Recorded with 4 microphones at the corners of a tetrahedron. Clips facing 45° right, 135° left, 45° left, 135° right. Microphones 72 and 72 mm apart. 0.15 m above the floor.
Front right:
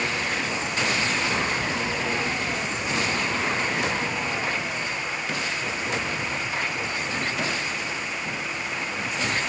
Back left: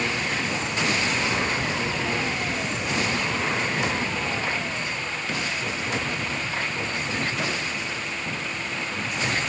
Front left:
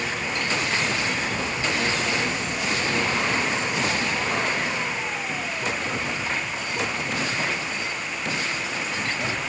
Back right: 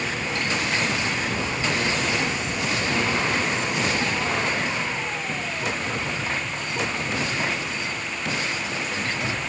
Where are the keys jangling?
No keys jangling in this recording.